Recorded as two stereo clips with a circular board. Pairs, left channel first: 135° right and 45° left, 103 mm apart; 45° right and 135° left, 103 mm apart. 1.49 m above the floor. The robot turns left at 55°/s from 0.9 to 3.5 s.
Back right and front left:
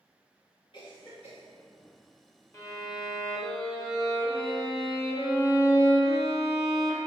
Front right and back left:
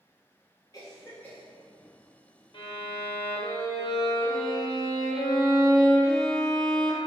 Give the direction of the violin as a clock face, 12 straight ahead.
3 o'clock.